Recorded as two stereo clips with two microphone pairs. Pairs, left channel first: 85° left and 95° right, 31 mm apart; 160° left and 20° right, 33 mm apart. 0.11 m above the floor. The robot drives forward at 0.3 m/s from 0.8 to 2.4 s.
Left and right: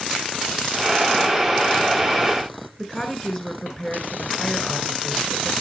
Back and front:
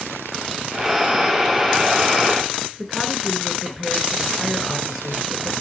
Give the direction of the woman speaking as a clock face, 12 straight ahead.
9 o'clock.